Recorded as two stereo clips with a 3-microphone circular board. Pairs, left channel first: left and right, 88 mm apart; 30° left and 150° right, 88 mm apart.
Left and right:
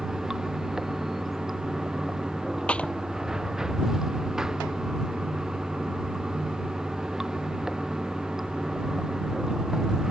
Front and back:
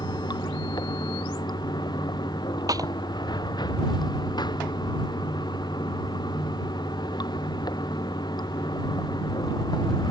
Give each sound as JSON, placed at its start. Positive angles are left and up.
{"t": 0.0, "sound": "running water", "azimuth_deg": -5}
{"t": 2.7, "sound": "a clap", "azimuth_deg": 165}